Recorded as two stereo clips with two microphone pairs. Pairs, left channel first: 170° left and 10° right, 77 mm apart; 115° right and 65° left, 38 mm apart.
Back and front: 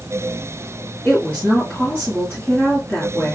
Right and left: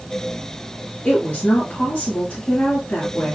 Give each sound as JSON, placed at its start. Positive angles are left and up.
{"t": 1.1, "sound": "a woman speaking", "azimuth_deg": -130, "distance_m": 1.9}